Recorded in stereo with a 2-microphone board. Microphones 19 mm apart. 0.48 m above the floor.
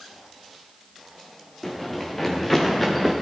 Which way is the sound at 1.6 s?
20° left (ahead or behind).